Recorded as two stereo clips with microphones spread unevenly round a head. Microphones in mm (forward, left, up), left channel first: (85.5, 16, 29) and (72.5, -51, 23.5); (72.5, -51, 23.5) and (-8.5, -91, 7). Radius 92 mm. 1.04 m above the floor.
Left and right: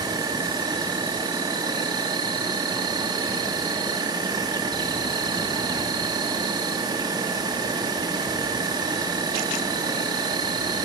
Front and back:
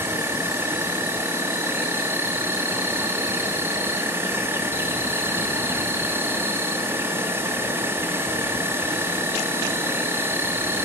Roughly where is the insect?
Right.